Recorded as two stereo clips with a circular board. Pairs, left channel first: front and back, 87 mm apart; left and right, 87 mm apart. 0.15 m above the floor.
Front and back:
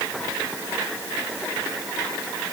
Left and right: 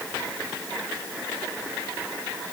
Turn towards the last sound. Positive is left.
No sound to turn to.